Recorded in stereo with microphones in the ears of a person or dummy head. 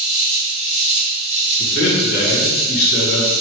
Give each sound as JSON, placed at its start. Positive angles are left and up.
{"t": 0.0, "sound": "an insect", "side_deg": 0, "distance_m": 1.4}
{"t": 1.6, "sound": "a man speaking", "side_deg": 55, "distance_m": 1.0}